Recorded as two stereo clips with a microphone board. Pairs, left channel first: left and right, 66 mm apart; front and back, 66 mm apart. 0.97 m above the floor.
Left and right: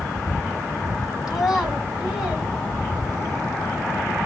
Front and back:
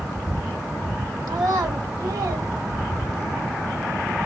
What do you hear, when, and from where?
1.3 s a child speaking: 170° right, 1.9 m; by 3.4 s 175° left, 3 m